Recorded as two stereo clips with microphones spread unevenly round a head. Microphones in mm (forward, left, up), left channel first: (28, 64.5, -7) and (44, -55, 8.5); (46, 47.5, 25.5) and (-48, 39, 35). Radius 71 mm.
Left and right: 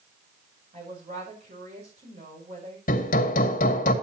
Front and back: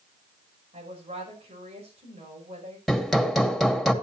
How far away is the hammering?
About 2 m.